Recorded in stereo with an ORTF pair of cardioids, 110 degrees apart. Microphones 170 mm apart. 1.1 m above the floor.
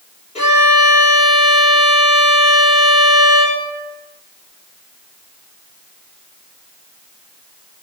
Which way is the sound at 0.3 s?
40° left.